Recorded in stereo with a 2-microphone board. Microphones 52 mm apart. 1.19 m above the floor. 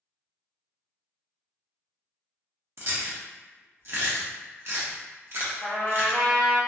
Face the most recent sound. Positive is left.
turn(degrees=30)  # may be behind; listen again after turning